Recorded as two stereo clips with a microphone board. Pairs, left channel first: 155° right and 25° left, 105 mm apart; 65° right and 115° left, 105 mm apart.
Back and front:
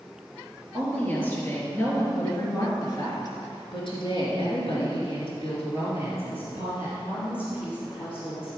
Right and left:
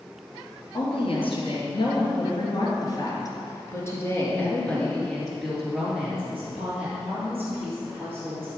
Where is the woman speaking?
85° right, 3.5 m; by 8.5 s 175° left, 4.5 m.